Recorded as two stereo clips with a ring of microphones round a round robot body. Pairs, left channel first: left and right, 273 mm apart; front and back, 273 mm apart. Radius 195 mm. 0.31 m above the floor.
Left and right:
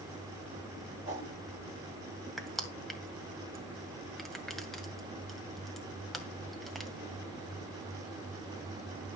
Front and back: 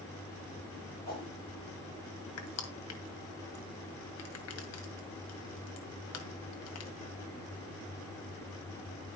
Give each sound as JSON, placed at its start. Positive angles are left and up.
{"t": 1.1, "sound": "a whoosh", "azimuth_deg": 55, "distance_m": 7.5}
{"t": 2.4, "sound": "crushing", "azimuth_deg": 0, "distance_m": 2.0}